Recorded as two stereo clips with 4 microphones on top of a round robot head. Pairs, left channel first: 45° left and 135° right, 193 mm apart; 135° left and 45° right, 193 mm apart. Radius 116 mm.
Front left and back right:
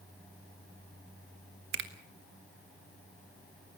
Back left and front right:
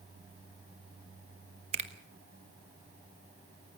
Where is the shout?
No shout in this recording.